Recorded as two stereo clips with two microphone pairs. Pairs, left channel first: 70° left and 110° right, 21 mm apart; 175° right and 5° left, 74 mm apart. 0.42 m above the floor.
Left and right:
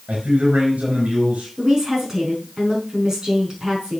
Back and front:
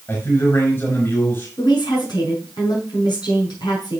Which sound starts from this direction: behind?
A woman speaking, at 1.6 s.